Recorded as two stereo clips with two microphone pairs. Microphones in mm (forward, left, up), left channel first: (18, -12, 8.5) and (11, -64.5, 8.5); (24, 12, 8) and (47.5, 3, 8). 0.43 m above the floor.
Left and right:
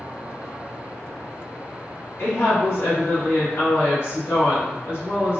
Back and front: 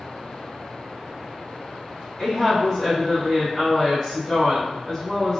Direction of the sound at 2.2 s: 85° left.